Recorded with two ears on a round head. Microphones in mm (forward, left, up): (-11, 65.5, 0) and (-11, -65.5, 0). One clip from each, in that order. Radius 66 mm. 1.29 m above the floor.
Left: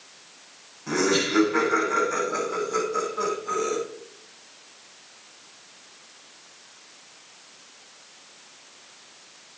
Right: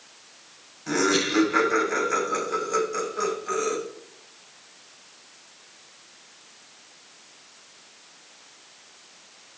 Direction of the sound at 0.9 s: 30° right (ahead or behind).